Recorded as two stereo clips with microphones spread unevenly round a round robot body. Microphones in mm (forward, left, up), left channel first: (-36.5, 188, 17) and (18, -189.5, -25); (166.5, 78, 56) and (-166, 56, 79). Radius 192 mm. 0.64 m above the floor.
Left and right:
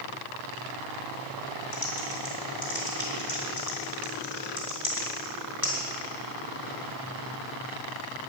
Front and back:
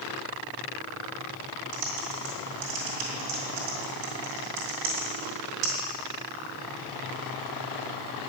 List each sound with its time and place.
1.7 s typing on a keyboard: 175° left, 3 m